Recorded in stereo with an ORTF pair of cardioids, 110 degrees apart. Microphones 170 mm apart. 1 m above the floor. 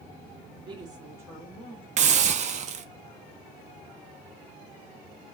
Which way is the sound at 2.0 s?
45° right.